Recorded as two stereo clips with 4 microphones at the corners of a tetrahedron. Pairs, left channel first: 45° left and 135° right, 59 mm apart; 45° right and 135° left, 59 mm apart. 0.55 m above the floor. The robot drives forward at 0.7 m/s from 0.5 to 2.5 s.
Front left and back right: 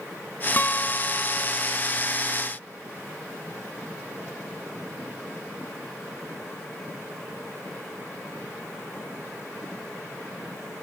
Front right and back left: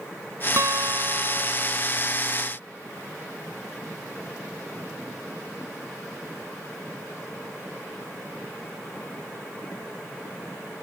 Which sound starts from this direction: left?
A guitar, at 0.6 s.